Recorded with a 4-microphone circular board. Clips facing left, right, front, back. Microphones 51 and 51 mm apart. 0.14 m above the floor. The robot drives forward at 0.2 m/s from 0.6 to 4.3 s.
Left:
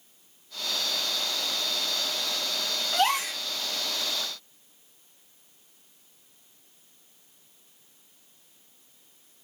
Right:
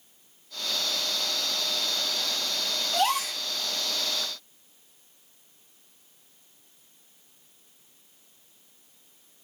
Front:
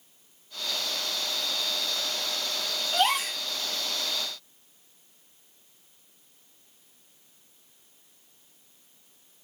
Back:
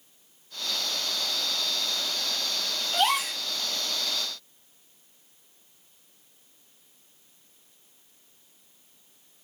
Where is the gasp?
90° left, 1.5 m; by 3.4 s 95° left, 1.5 m.